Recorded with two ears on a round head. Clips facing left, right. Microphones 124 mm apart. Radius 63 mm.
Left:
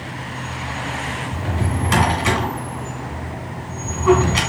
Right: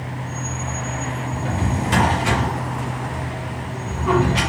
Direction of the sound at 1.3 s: 80° left.